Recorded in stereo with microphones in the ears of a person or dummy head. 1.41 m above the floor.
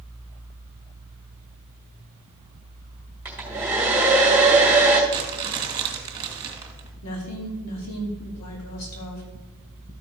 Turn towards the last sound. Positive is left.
turn(degrees=80)